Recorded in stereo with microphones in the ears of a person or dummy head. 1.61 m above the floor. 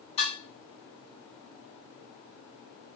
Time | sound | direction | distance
0.2 | dishes clattering | 30° left (ahead or behind) | 1.6 m